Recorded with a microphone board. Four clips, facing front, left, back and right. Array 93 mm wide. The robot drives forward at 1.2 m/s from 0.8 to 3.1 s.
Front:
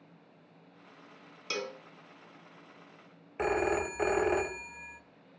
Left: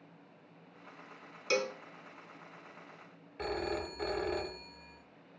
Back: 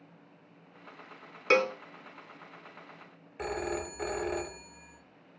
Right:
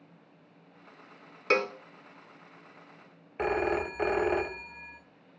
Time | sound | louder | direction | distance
1.5 | a cowbell | right 5 dB, back 12 dB | 140° right | 0.7 m
3.4 | a phone ringing | right 8 dB, front 5 dB | 55° right | 0.8 m